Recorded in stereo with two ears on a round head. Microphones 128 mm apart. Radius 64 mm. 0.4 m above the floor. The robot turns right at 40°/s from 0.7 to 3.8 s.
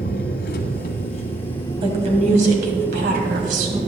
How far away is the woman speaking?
About 2.5 m.